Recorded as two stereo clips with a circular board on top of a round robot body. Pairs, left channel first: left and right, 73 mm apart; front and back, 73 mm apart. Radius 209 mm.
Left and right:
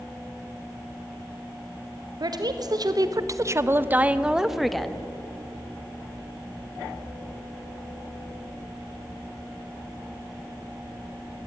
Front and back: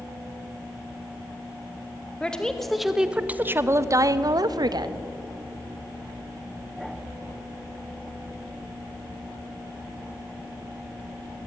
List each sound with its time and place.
2.2 s a woman speaking: 75° right, 1.5 m; by 5.0 s 175° left, 1.6 m